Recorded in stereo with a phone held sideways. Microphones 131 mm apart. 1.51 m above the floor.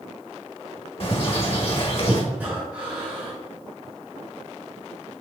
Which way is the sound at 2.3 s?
15° right (ahead or behind).